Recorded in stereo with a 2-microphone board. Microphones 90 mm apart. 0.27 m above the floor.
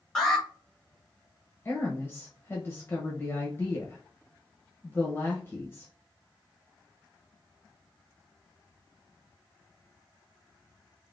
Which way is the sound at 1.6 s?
25° left (ahead or behind).